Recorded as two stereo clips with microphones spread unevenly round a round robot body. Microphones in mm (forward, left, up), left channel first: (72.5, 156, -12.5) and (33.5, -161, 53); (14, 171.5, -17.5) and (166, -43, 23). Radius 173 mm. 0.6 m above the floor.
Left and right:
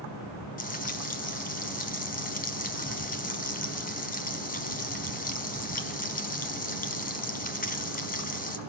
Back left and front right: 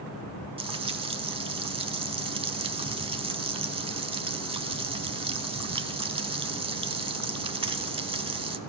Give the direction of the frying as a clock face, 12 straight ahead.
11 o'clock.